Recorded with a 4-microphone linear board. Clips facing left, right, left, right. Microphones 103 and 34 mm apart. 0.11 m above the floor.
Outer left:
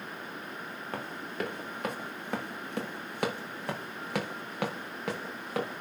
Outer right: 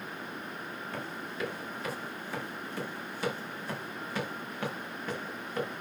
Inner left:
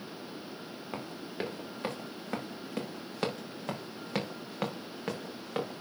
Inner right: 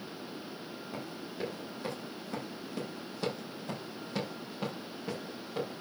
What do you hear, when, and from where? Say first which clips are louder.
0.9 s running footsteps: outer left 3 dB, inner left 3 dB; 50° left (ahead or behind), 4.5 m; by 5.8 s 85° left, 4.5 m